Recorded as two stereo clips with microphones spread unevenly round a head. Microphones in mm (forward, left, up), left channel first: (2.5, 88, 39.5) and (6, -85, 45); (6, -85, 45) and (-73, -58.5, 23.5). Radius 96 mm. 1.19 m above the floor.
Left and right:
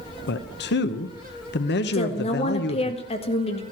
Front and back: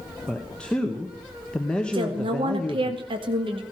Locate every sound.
0.3 s a man speaking: 65° left, 0.9 m
1.9 s a woman speaking: 150° left, 1.9 m